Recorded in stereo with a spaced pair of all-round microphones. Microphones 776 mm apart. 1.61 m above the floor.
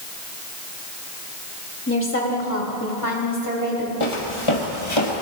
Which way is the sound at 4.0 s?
40° left (ahead or behind).